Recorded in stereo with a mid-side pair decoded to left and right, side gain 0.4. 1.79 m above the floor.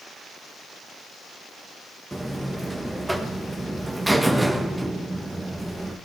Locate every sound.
2.1 s a buzzer: 15° right, 2 m